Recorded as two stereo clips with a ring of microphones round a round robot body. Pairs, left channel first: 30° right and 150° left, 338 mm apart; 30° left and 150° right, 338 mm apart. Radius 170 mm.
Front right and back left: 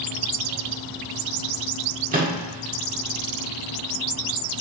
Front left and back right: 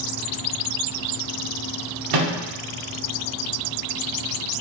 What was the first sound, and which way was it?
A microwave, 145° right.